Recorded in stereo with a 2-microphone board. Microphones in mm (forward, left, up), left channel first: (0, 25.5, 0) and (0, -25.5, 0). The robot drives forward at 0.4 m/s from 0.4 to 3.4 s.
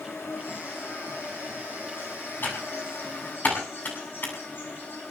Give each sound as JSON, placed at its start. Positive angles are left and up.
{"t": 0.0, "sound": "an insect", "side_deg": 55, "distance_m": 6.0}
{"t": 2.4, "sound": "typing on a keyboard", "side_deg": 40, "distance_m": 7.5}